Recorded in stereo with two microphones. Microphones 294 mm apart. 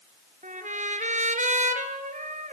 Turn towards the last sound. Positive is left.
turn(degrees=-25)  # may be behind; listen again after turning